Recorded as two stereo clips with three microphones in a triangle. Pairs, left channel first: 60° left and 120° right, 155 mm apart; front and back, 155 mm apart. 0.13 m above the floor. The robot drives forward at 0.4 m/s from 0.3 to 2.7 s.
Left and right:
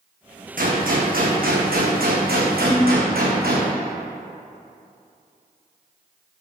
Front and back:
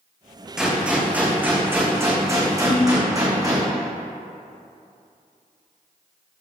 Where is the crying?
I don't hear crying.